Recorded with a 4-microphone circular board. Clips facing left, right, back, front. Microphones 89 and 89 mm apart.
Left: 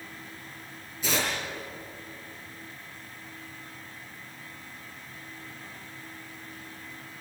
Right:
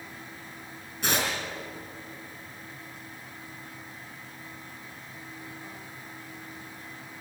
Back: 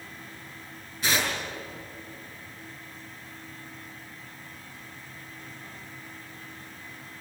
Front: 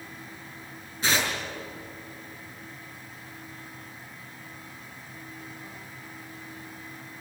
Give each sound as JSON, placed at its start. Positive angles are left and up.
{"t": 1.0, "sound": "tearing paper", "azimuth_deg": -70, "distance_m": 6.0}